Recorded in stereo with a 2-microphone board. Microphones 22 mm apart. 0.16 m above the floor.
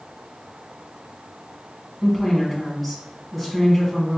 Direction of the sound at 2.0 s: 10° right (ahead or behind).